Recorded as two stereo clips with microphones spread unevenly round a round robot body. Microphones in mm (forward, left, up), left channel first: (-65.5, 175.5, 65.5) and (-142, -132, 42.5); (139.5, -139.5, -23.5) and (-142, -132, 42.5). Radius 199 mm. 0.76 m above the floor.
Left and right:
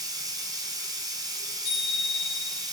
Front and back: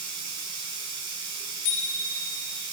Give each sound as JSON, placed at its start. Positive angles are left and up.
{"t": 0.0, "sound": "running water", "azimuth_deg": 180, "distance_m": 5.0}
{"t": 1.6, "sound": "a bicycle bell", "azimuth_deg": 10, "distance_m": 9.5}